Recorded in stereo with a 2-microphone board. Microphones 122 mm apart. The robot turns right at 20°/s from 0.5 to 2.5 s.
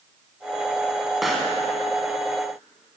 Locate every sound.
1.2 s a pop: centre (ahead or behind), 1.0 m